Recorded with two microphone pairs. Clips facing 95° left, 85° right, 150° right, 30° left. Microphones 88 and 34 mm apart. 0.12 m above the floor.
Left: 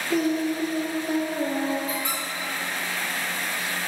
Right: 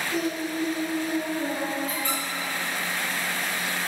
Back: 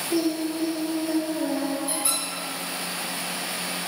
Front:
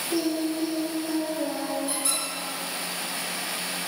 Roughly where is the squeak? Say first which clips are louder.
Even, back 1 dB; behind left.